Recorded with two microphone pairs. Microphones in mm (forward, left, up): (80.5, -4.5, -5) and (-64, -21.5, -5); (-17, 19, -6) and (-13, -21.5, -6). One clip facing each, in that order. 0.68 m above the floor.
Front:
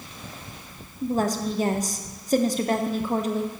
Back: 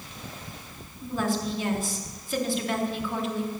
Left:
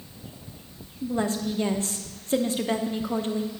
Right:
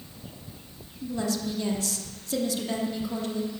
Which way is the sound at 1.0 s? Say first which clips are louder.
Front 4 dB, left 3 dB; 45° left.